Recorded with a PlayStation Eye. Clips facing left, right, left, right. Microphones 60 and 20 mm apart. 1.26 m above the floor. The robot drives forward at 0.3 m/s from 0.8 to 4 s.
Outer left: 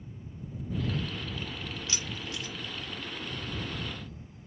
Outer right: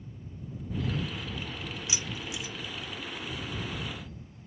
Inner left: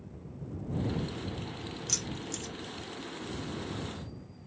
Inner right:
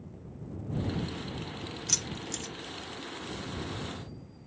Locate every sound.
1.9 s keys jangling: 15° right (ahead or behind), 0.6 m; by 2.5 s 10° right (ahead or behind), 0.7 m